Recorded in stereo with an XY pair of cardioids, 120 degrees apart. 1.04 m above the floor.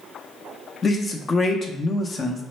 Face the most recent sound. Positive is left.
turn(degrees=30)